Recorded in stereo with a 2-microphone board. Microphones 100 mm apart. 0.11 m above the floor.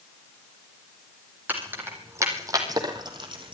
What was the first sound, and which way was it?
Keys jangling, 20° right (ahead or behind).